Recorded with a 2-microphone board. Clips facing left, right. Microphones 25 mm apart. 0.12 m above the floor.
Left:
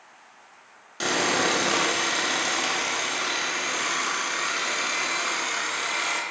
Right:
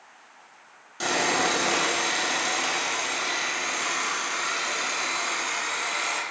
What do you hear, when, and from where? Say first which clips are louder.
1.0 s sawing: left 1 dB; 20° left (ahead or behind), 0.8 m